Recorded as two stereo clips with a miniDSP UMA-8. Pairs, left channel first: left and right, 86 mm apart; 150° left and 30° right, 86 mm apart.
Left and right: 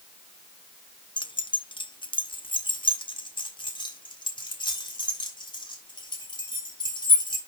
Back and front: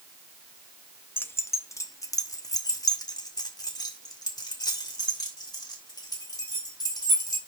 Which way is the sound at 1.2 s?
85° left.